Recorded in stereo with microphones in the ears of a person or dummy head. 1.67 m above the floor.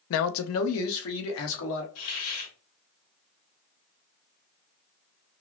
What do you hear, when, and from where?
0.1 s a man speaking: 65° left (ahead or behind), 0.5 m; by 1.9 s 80° left, 1.6 m
1.9 s a hiss: 75° left (ahead or behind), 3 m